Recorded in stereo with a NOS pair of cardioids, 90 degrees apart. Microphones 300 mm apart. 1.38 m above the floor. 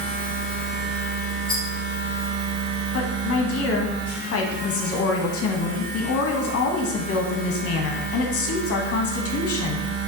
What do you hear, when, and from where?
0.0 s a machine running: 40° right, 1.0 m
1.5 s a rattle: 15° left, 1.6 m
2.9 s a woman speaking: 55° left, 0.7 m